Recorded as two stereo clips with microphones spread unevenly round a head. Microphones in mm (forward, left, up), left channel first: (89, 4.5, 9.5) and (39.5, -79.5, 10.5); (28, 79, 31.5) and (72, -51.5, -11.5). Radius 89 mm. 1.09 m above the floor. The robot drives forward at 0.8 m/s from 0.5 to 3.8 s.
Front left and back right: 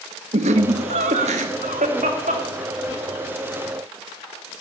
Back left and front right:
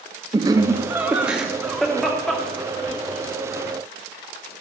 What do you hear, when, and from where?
0.3 s laughter: 140° right, 1.1 m; by 3.2 s 165° right, 3 m